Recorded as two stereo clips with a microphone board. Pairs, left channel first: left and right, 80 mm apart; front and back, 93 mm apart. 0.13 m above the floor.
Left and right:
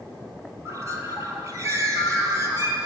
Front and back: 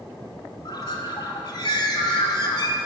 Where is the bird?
40° right, 1.1 m.